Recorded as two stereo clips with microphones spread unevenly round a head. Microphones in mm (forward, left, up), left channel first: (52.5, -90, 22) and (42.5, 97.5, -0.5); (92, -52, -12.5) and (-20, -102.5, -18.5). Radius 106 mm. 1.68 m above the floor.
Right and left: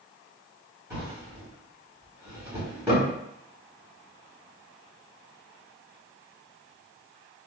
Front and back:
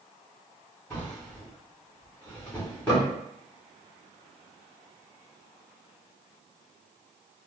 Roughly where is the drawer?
Ahead left.